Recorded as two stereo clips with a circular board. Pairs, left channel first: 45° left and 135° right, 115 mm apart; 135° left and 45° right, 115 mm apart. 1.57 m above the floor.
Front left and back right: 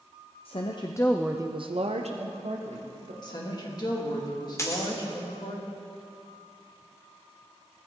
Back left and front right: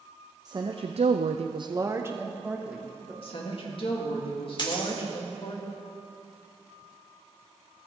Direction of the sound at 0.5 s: 10° left.